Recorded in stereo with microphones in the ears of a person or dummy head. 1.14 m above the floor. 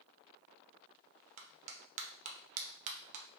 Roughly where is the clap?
Right.